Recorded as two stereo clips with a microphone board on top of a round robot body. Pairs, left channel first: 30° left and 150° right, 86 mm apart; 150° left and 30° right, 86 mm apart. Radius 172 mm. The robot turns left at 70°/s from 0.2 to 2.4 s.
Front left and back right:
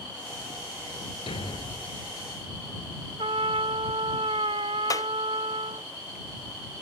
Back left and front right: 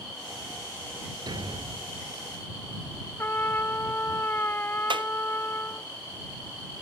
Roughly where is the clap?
Ahead.